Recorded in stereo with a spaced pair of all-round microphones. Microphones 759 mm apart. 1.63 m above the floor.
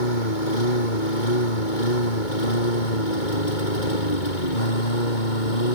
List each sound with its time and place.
0.0 s a lawn mower: 85° left; by 5.8 s 80° left